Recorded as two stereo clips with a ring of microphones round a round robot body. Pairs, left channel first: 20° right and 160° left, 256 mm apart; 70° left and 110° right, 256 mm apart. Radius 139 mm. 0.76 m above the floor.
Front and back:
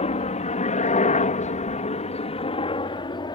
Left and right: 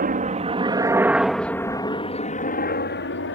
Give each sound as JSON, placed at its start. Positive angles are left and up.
{"t": 0.0, "sound": "a helicopter", "azimuth_deg": -75}